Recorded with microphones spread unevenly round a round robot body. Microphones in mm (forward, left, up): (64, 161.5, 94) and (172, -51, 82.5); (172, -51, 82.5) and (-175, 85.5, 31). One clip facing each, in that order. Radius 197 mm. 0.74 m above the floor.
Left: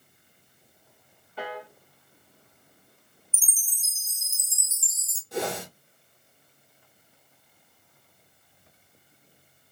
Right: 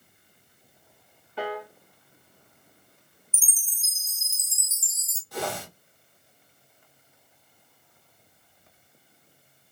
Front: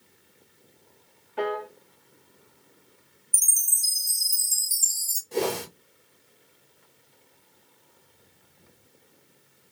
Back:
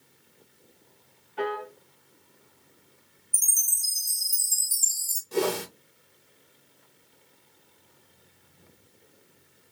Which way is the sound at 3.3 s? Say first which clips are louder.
Right 1 dB, front 1 dB; 35° right.